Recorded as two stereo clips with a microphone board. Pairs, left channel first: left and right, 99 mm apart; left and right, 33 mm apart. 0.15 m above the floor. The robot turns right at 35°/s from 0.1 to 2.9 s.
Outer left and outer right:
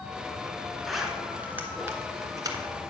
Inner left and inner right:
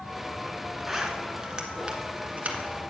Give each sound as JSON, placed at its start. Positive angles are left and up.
{"t": 0.9, "sound": "a zipper", "side_deg": 0, "distance_m": 1.2}